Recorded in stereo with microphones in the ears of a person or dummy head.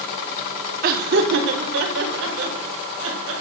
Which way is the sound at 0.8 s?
50° right (ahead or behind).